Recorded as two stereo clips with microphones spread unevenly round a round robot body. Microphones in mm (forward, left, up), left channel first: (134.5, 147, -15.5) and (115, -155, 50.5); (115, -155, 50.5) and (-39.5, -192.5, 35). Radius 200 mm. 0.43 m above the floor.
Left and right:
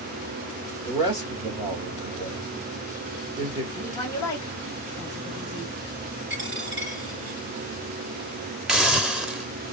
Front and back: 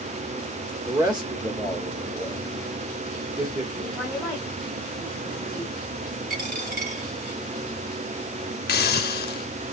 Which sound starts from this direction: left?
A woman speaking, at 3.7 s.